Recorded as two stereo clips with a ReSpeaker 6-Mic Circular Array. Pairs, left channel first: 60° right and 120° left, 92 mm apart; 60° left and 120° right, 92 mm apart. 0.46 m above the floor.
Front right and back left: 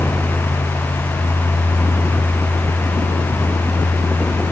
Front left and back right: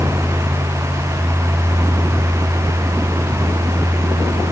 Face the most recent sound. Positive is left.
No sound to turn to.